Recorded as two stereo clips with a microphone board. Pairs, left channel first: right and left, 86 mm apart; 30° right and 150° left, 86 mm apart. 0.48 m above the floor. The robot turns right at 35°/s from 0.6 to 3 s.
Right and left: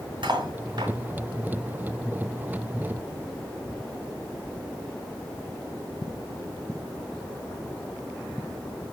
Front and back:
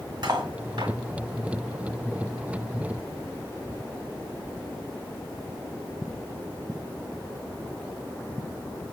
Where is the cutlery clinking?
115° left, 1.9 m; by 0.9 s 125° left, 1.9 m.